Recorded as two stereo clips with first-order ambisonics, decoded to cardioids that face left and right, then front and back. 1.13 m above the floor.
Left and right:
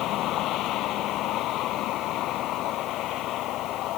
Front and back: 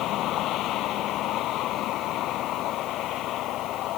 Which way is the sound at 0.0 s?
45° left.